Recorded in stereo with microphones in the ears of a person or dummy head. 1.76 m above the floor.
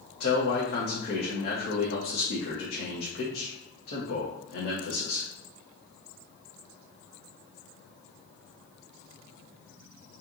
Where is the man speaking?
60° left (ahead or behind), 1.3 m.